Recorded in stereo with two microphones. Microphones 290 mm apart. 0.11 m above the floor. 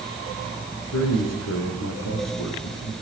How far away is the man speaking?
About 6.5 m.